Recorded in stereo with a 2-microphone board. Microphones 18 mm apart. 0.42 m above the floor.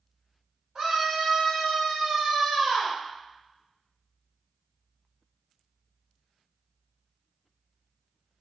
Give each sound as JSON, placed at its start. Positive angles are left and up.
{"t": 0.8, "sound": "a scream", "side_deg": -35, "distance_m": 1.7}